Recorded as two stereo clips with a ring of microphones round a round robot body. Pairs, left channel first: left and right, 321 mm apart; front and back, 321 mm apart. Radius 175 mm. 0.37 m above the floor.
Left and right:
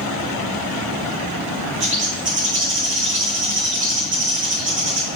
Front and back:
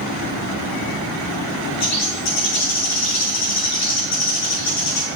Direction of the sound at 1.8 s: 35° right.